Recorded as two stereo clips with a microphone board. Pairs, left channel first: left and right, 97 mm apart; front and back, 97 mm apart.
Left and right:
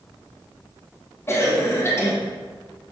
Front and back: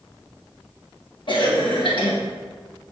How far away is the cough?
About 1.2 m.